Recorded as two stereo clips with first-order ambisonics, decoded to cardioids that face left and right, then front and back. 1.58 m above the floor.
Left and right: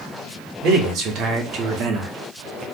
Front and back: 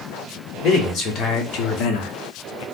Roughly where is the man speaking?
Ahead right.